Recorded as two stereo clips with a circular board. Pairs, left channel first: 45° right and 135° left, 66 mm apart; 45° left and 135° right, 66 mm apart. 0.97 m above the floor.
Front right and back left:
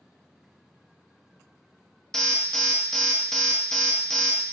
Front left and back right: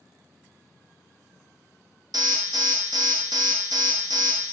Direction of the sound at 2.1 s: 130° right.